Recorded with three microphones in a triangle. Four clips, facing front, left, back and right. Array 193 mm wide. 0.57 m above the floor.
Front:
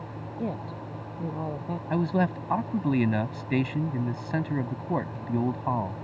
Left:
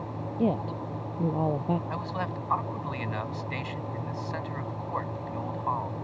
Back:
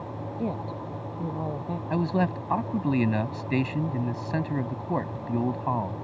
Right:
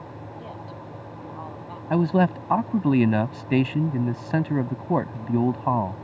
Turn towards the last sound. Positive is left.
turn(degrees=-90)